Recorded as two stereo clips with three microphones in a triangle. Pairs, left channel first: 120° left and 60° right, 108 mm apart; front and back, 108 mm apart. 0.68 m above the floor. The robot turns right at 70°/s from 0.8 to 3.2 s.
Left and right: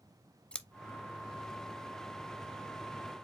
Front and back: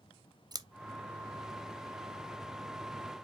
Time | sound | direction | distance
0.5 | scissors | 165° right | 0.5 m